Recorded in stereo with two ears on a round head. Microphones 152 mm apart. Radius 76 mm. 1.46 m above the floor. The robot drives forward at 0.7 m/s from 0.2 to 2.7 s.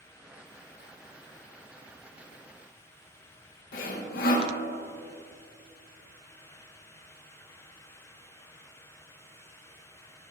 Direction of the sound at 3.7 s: 55° left (ahead or behind).